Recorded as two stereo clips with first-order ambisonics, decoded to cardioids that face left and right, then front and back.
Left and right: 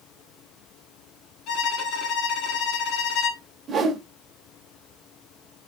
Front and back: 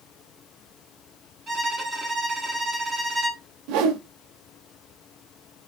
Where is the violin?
110° left, 1.5 m.